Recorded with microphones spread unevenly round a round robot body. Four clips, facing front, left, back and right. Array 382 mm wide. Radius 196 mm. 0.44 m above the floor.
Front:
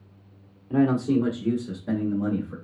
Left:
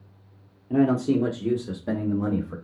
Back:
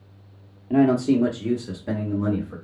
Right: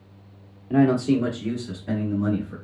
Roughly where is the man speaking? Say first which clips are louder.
Right 2 dB, back 3 dB; behind.